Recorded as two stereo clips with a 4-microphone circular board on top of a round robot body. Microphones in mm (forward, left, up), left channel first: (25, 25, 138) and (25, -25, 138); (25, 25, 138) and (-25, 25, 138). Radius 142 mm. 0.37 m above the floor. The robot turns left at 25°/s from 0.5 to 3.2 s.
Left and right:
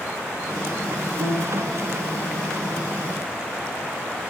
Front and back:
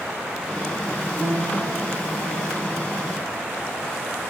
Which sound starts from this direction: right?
A piano, at 1.2 s.